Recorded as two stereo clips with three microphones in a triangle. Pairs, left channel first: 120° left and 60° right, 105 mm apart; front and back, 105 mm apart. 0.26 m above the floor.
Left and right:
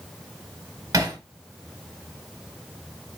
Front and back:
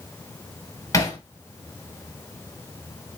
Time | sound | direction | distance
0.9 | hammering | 30° right | 1.4 m